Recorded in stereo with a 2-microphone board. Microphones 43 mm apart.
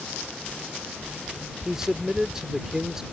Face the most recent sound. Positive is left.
turn(degrees=-15)  # may be behind; listen again after turning